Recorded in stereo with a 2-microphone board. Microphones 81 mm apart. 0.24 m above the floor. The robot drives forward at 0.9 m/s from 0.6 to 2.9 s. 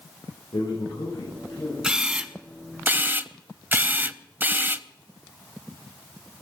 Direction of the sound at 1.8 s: 10° right (ahead or behind).